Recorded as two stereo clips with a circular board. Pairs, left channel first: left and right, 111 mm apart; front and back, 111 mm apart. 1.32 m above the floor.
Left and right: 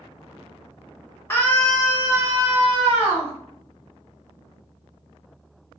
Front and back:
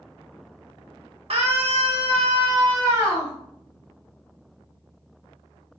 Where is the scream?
155° left, 0.8 m; by 3.3 s 115° right, 1.4 m.